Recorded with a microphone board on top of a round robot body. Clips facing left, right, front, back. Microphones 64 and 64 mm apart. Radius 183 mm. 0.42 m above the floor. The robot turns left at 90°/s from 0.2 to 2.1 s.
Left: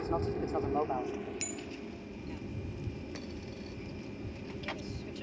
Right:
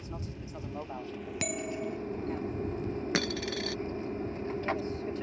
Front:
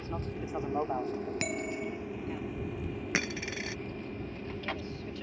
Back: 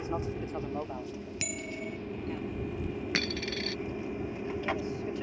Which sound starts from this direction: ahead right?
A bell, at 1.4 s.